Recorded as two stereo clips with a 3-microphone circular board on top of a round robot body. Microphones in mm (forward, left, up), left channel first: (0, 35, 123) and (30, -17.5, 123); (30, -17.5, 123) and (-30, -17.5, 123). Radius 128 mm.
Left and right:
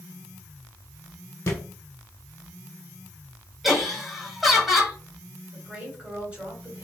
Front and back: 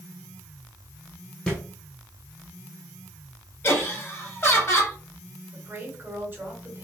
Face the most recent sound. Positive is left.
turn(degrees=-125)